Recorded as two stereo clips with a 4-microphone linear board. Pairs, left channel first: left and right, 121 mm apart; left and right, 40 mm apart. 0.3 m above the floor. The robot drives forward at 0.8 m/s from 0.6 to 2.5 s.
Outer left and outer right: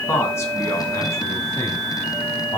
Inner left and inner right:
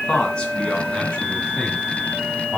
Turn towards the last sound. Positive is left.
turn(degrees=35)  # may be behind; listen again after turning